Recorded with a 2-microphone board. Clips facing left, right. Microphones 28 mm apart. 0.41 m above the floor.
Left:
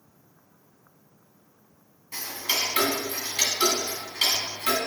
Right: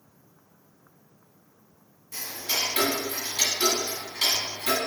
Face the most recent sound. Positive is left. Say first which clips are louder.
# left 2 dB
turn(degrees=50)  # may be behind; listen again after turning